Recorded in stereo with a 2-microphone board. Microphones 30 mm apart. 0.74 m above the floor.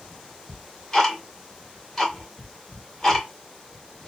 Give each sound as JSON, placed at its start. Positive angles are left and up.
{"t": 0.5, "sound": "ticking", "side_deg": 20, "distance_m": 1.5}